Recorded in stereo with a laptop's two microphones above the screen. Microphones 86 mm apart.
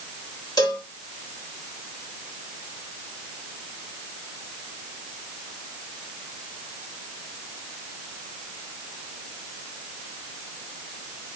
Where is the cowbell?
45° left (ahead or behind), 1.6 m.